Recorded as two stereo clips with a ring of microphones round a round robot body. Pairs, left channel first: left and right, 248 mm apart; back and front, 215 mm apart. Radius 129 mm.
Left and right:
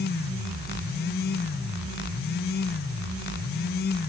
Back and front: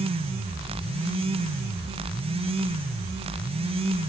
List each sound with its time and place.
Only background noise.